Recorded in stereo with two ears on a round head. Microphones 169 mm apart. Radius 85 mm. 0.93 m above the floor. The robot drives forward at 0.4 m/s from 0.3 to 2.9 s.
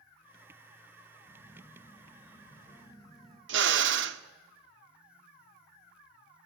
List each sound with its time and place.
1.2 s a phone buzzing: 20° left (ahead or behind), 9.5 m
3.5 s a drill: 70° right (ahead or behind), 1.0 m